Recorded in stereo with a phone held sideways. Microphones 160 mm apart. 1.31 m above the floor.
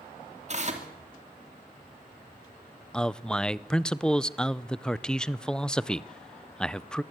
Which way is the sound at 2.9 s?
5° left (ahead or behind).